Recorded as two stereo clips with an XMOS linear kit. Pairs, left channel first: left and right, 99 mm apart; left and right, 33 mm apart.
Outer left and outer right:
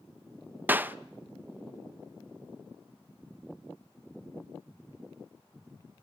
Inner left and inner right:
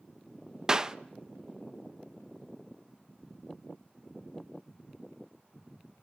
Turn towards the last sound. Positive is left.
turn(degrees=-20)  # may be behind; listen again after turning